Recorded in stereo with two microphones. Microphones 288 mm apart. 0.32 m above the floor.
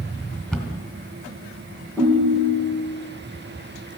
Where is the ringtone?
5° left (ahead or behind), 5.5 m.